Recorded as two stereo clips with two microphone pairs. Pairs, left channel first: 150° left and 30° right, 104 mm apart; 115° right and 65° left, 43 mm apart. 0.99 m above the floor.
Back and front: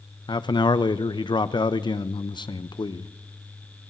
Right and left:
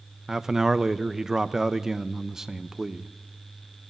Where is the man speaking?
145° left, 0.5 m.